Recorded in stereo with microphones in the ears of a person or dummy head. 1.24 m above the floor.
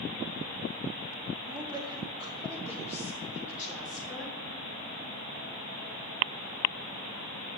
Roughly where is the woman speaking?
Right.